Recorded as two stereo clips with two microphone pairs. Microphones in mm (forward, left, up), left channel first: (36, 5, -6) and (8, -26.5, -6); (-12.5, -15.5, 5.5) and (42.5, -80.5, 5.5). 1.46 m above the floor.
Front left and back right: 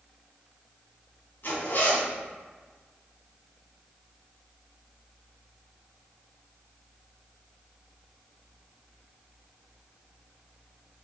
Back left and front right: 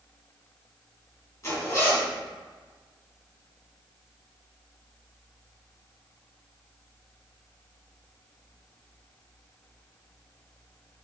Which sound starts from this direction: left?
A zipper, at 1.4 s.